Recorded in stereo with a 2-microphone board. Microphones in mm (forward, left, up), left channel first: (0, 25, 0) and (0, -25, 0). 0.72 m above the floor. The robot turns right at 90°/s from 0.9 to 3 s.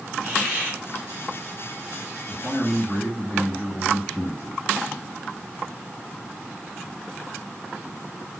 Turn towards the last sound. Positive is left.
turn(degrees=100)